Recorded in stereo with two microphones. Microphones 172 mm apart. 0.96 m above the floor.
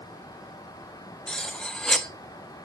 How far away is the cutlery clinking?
About 0.5 m.